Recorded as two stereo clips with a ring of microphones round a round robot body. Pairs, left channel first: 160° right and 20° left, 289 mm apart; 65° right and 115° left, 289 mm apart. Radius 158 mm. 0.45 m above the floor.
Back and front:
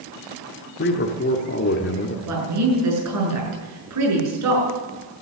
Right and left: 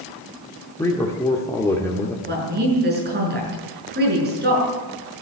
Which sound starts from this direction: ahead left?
A woman speaking, at 2.3 s.